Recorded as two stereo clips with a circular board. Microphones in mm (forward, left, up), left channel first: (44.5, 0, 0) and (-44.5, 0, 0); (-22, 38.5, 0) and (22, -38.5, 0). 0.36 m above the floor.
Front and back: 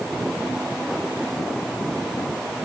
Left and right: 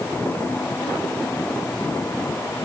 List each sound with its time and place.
Only background noise.